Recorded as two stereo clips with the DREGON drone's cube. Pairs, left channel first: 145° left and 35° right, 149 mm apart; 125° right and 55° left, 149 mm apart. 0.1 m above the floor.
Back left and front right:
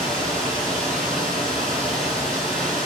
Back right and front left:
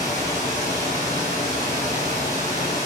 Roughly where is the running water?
Behind right.